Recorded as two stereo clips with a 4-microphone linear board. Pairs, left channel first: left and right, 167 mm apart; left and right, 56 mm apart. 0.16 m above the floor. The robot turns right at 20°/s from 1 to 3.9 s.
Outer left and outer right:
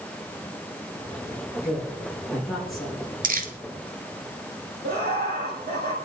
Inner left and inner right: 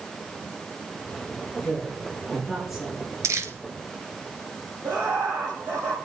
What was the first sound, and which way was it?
A woman speaking, 20° left (ahead or behind).